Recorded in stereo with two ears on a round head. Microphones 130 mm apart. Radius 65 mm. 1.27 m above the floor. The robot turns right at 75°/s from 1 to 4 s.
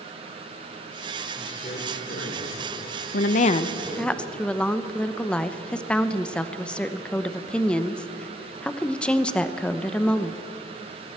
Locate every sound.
1.4 s a man speaking: 20° left, 4 m; by 4.1 s 140° right, 4 m
3.1 s a woman speaking: 110° left, 0.7 m; by 10.4 s 175° left, 0.7 m